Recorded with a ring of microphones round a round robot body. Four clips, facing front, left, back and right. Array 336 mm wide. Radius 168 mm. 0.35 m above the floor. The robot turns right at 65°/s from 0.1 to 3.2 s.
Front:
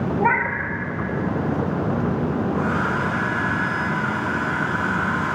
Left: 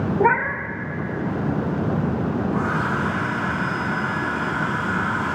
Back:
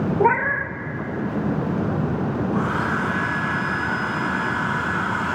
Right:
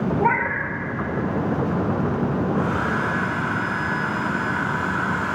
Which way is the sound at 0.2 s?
135° left.